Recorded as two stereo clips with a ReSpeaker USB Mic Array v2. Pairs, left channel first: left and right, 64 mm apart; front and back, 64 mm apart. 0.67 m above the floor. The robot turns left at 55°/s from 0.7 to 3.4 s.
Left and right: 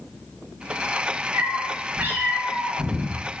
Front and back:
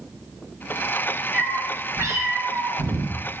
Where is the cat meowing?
110° right, 0.5 m; by 3.4 s 135° left, 0.5 m.